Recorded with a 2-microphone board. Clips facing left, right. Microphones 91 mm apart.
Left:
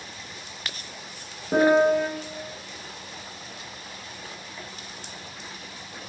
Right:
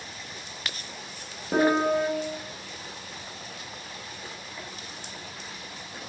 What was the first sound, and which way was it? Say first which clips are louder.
A piano: left 4 dB; 5° left (ahead or behind).